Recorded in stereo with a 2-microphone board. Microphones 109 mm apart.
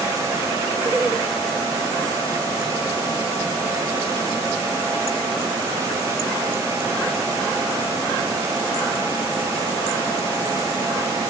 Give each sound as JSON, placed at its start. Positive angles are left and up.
{"t": 0.8, "sound": "laughter", "side_deg": -15, "distance_m": 2.5}